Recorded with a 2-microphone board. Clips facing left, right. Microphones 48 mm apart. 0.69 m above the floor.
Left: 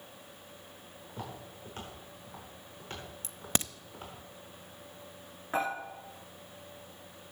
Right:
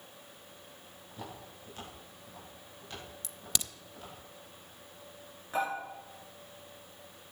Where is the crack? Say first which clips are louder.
Left 6 dB; 35° left (ahead or behind), 0.5 m.